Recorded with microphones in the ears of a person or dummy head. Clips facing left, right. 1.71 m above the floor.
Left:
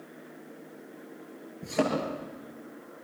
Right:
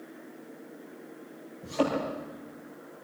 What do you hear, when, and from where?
1.6 s a thud: 75° left (ahead or behind), 9.5 m